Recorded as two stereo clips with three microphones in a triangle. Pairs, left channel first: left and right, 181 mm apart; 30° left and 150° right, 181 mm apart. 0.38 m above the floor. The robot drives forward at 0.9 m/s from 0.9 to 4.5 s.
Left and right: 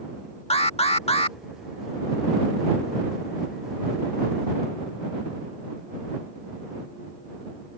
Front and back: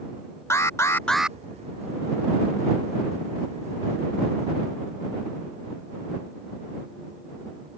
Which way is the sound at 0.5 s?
90° left.